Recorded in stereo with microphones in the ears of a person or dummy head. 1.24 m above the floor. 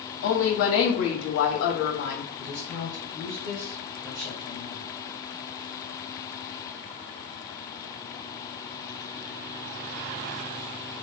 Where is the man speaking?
35° right (ahead or behind), 1.3 m.